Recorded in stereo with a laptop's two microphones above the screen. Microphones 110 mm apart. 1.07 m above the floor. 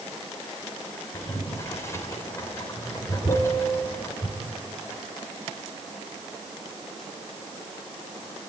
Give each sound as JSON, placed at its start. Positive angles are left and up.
{"t": 1.1, "sound": "boiling", "side_deg": 25, "distance_m": 4.0}
{"t": 3.3, "sound": "a piano", "side_deg": 45, "distance_m": 5.5}